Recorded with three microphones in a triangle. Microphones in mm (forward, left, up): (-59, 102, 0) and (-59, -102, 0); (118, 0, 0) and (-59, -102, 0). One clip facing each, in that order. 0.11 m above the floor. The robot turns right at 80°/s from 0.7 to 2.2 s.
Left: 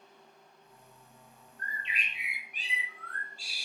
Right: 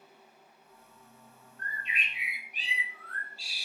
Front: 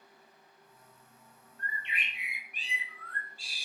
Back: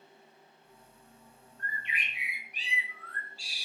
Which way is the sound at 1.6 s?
10° left.